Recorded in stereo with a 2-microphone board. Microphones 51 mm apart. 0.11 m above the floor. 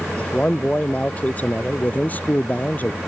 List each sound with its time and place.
0.2 s a man speaking: 25° left (ahead or behind); by 3.0 s 35° left (ahead or behind)